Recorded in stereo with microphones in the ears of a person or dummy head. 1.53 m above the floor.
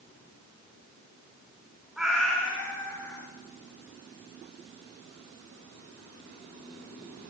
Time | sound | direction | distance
2.0 | a cat meowing | 5° right (ahead or behind) | 2.0 m